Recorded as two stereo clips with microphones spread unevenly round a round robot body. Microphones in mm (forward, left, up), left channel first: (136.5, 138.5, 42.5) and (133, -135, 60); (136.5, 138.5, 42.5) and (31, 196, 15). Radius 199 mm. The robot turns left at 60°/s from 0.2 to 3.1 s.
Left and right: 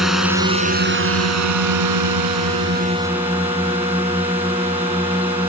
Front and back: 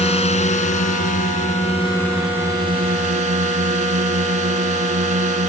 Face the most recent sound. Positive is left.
turn(degrees=-175)